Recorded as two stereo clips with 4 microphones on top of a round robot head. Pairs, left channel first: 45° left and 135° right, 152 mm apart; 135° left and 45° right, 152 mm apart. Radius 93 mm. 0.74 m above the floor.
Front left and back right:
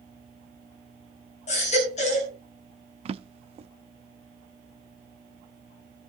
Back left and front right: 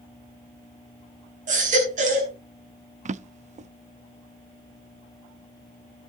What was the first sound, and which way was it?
A baby crying, straight ahead.